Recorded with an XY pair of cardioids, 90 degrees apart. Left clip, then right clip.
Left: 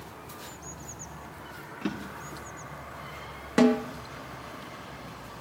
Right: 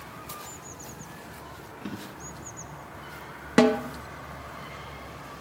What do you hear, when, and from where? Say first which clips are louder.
1.8 s a drawer: left 4 dB; 55° left, 3.5 m
3.6 s a snare drum: right 2 dB; 30° right, 0.9 m